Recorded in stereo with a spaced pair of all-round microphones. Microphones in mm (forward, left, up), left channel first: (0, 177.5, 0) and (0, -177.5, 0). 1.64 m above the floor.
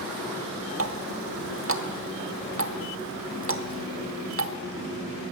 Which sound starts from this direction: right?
A running tap, at 0.8 s.